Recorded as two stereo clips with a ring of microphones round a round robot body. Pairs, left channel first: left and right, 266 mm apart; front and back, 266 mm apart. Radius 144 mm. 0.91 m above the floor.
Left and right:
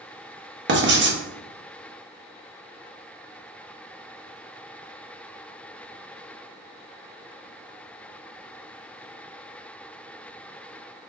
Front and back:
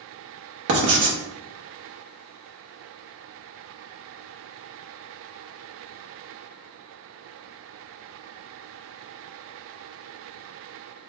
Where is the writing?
140° right, 1.0 m.